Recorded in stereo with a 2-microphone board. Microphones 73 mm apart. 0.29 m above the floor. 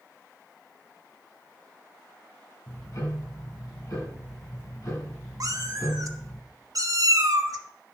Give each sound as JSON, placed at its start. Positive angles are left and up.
{"t": 2.7, "sound": "ticking", "side_deg": 55, "distance_m": 5.0}
{"t": 5.4, "sound": "a cat meowing", "side_deg": -55, "distance_m": 0.8}